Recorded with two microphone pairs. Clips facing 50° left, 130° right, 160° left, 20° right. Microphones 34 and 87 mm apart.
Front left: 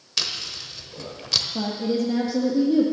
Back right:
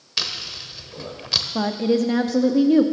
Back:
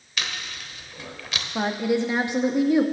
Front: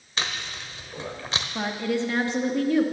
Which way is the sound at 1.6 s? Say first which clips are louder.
Back right 7 dB, back 4 dB; 125° right.